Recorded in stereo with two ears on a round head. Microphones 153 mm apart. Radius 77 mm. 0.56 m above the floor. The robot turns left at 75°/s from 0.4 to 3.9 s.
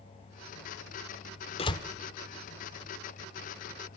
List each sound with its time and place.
1.6 s a door slam: 35° left (ahead or behind), 1.2 m; by 1.8 s 20° left (ahead or behind), 1.2 m